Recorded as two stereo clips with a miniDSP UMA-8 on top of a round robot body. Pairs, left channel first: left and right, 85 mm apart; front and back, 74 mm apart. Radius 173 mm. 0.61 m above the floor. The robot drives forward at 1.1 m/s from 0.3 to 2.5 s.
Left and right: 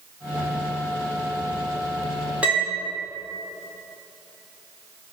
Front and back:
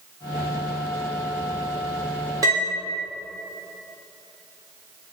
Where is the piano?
160° right, 1.8 m; by 2.8 s 165° right, 1.9 m.